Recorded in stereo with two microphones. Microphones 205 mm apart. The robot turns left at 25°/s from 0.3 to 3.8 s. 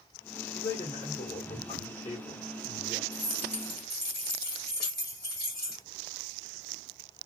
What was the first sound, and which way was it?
A man speaking, 25° left (ahead or behind).